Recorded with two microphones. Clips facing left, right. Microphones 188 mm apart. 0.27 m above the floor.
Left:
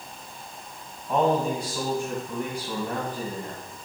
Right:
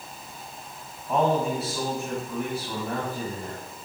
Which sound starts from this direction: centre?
A man speaking, at 1.1 s.